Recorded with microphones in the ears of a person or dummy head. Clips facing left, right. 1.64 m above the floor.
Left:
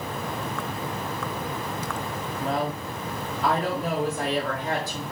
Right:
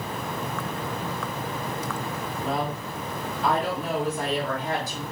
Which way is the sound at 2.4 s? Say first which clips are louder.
Left 1 dB; 55° left (ahead or behind).